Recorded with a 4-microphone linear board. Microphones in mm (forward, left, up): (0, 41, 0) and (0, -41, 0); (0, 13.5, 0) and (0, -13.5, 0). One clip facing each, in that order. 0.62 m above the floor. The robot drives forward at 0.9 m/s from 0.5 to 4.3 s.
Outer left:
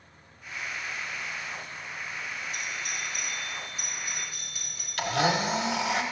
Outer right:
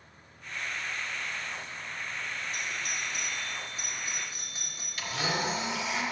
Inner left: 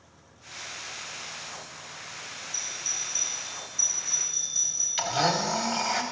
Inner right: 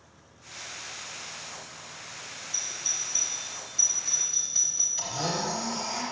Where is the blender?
70° left (ahead or behind), 1.2 m.